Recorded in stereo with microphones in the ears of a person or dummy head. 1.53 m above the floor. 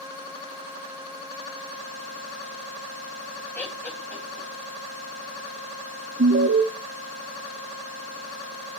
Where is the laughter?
10° left (ahead or behind), 2.5 m.